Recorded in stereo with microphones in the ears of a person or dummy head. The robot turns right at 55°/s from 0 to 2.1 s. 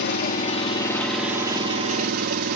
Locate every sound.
0.0 s an engine running: 115° left, 1.8 m; by 2.6 s 130° right, 1.8 m